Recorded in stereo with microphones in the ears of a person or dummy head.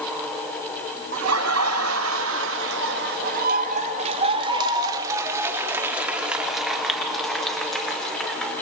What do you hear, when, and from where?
1.1 s laughter: 80° right, 1.8 m; by 8.5 s 5° left (ahead or behind), 3.5 m